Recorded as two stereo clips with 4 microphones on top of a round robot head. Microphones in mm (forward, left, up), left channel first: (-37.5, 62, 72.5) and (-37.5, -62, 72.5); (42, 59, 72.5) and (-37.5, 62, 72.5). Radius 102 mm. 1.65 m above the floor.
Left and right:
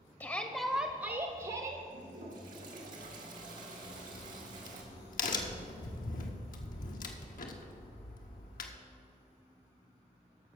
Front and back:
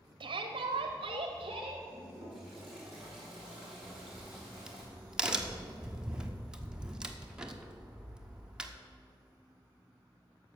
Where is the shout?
160° left, 0.8 m; by 1.8 s 130° right, 1.0 m.